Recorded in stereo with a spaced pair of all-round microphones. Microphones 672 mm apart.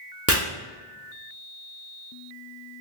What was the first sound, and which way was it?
Chopping, 20° right (ahead or behind).